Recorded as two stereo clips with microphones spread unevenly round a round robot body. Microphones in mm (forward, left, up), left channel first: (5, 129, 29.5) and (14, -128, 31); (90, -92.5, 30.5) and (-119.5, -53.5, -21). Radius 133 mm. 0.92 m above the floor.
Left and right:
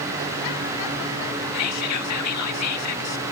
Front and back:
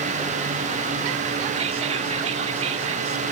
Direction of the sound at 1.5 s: 110° left.